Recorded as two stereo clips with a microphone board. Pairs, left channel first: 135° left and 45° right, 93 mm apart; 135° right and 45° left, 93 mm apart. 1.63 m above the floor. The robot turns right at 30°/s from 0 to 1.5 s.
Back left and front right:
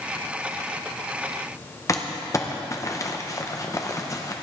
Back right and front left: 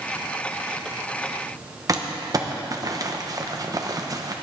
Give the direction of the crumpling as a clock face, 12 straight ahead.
9 o'clock.